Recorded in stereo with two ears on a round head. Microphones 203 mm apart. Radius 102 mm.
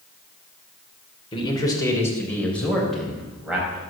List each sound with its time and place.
1.3 s a man speaking: 25° left (ahead or behind), 4 m; by 3.8 s 5° right (ahead or behind), 6.5 m